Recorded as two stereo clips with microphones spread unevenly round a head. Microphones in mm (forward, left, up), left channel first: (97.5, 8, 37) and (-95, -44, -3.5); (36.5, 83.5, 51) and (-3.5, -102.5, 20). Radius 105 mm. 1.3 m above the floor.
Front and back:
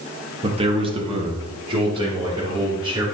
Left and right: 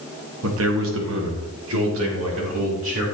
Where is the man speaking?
100° right, 1.6 m; by 3.0 s 95° right, 4 m.